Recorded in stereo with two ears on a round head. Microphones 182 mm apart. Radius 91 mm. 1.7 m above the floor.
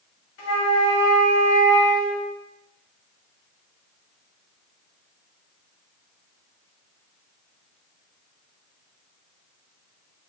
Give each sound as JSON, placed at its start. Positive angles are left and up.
{"t": 0.4, "sound": "a flute", "side_deg": 60, "distance_m": 1.7}